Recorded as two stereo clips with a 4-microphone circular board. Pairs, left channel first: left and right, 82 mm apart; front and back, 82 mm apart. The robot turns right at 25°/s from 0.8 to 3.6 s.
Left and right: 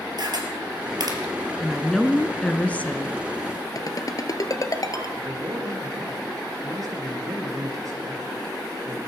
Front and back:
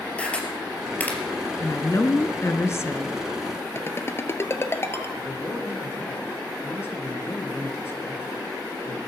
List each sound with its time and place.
0.2 s a camera shutter: 70° right, 3.5 m; by 1.2 s 65° right, 3.5 m
1.6 s a woman speaking: straight ahead, 1.3 m; by 3.2 s 40° left, 1.3 m
3.8 s a ringtone: 55° left, 1.3 m
5.2 s a man speaking: 55° right, 3.5 m